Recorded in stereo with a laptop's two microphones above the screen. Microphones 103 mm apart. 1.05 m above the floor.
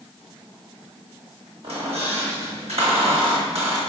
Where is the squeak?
85° right, 1.2 m.